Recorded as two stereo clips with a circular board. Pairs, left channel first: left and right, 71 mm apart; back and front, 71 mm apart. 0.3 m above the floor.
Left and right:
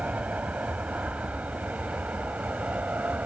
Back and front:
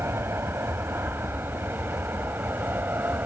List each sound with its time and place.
0.0 s an aircraft: 30° right; by 3.3 s 35° right